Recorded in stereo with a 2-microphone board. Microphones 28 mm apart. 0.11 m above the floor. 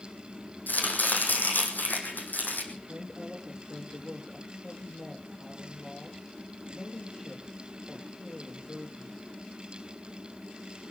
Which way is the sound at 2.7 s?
25° left (ahead or behind).